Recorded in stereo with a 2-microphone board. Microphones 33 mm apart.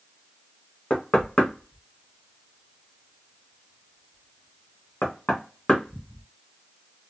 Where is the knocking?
35° left (ahead or behind), 1.3 m.